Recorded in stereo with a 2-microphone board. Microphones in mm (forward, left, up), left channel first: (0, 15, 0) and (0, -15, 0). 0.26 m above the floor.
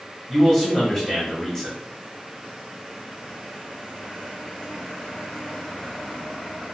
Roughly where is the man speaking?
Centre.